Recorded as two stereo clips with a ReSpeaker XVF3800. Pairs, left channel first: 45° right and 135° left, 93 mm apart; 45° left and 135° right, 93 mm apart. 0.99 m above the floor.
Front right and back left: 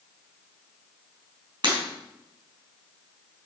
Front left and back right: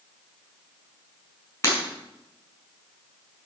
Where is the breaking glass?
105° left, 5 m.